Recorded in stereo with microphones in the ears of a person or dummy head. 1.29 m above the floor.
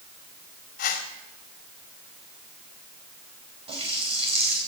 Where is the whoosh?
60° left (ahead or behind), 1.8 m.